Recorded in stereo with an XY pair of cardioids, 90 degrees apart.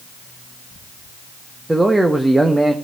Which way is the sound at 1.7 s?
15° right.